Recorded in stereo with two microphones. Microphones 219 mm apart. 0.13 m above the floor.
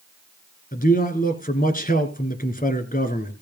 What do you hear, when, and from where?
0.7 s a man speaking: 40° left (ahead or behind), 2.0 m